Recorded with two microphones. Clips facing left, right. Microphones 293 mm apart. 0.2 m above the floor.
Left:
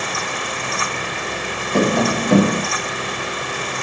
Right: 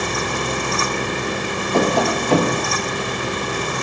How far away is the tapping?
About 0.9 m.